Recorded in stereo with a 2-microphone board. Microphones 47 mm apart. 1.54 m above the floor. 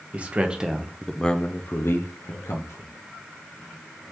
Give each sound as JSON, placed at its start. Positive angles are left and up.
{"t": 0.1, "sound": "a man speaking", "side_deg": -25, "distance_m": 0.9}